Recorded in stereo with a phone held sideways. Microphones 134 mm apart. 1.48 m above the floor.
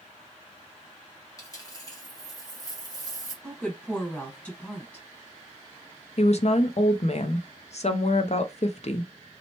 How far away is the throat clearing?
I don't hear throat clearing.